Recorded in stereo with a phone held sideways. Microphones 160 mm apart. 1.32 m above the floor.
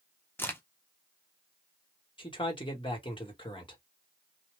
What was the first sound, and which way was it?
A crack, 15° left (ahead or behind).